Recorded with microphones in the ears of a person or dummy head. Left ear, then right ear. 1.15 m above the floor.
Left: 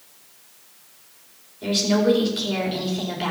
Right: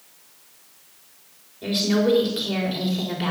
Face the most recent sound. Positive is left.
turn(degrees=0)  # may be behind; listen again after turning